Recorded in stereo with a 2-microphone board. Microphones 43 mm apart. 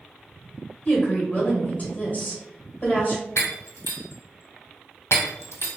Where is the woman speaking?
35° left (ahead or behind), 1.9 m.